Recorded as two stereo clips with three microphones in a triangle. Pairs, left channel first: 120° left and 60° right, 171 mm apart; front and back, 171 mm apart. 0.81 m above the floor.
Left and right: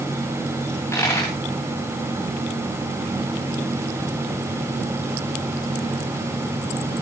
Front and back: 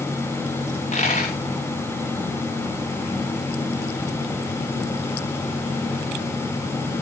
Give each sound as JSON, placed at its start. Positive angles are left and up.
{"t": 0.7, "sound": "a dropped coin", "azimuth_deg": 45, "distance_m": 8.5}